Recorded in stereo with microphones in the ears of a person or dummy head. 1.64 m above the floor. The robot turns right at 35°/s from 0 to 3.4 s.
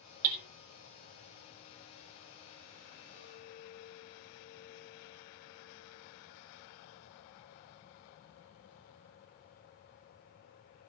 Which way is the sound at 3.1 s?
50° left (ahead or behind).